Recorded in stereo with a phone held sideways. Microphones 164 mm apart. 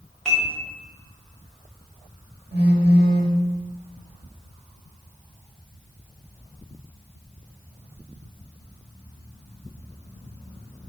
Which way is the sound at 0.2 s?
5° left (ahead or behind).